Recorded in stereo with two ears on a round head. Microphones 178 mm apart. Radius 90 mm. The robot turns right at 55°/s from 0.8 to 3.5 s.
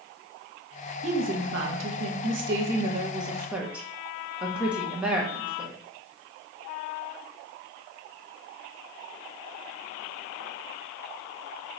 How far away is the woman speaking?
About 1.5 m.